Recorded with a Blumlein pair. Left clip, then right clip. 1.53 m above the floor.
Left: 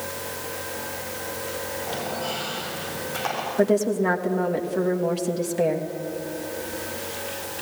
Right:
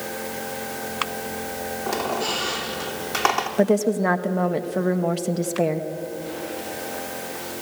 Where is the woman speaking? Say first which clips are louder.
Left 1 dB; 15° right, 1.3 m.